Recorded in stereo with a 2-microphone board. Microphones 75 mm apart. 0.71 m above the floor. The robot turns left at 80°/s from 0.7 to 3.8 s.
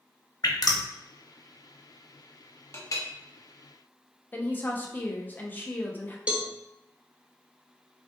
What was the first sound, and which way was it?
Dripping, 55° left (ahead or behind).